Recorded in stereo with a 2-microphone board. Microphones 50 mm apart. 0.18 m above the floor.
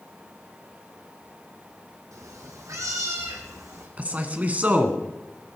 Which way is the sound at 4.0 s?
30° right (ahead or behind).